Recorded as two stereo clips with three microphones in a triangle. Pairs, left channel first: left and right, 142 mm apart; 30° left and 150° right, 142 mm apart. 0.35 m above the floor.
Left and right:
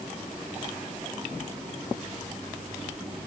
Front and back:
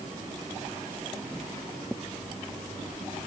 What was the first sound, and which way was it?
Only background noise.